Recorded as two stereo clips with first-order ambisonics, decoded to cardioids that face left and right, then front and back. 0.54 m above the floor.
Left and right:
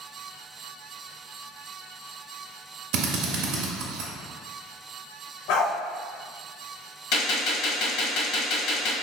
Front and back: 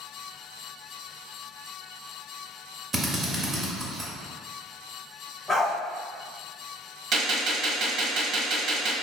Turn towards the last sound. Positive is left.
turn(degrees=130)